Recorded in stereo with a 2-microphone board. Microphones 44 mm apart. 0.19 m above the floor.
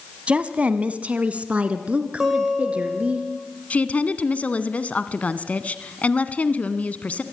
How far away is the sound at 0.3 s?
About 1.1 m.